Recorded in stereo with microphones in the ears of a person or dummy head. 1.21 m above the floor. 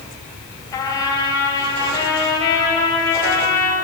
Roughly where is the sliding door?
No sliding door in this recording.